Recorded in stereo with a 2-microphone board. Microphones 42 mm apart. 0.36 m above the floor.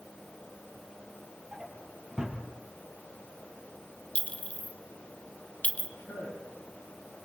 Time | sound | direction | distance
1.5 | a drawer | 10° right (ahead or behind) | 4 m
4.2 | a clink | 30° left (ahead or behind) | 1.1 m
6.0 | a man speaking | 65° left (ahead or behind) | 9.5 m